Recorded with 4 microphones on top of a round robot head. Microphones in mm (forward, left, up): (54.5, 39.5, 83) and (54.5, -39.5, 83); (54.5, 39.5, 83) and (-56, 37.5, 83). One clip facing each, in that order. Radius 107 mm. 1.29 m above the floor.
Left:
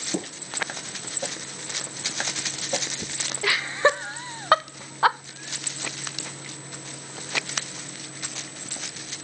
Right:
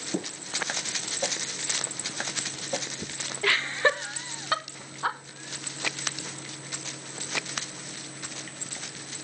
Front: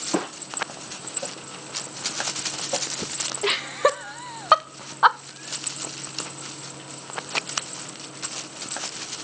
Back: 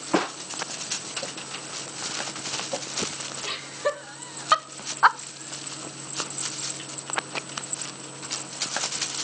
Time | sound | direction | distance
3.4 | laughter | 10° left | 1.3 m